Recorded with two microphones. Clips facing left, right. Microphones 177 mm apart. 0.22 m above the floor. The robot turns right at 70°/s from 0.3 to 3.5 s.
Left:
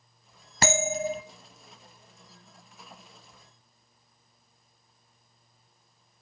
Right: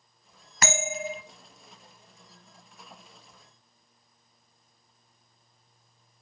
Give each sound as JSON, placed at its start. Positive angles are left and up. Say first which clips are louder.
{"t": 0.6, "sound": "a bell", "louder": "left 4 dB", "azimuth_deg": 50, "distance_m": 0.7}